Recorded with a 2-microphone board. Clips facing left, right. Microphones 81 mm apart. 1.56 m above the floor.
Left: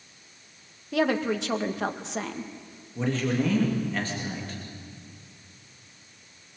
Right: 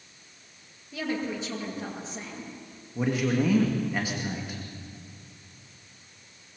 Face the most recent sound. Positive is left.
turn(degrees=-10)  # may be behind; listen again after turning